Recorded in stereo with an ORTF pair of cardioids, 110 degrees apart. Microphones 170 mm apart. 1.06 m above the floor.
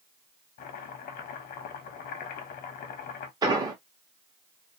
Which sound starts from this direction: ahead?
An explosion, at 3.4 s.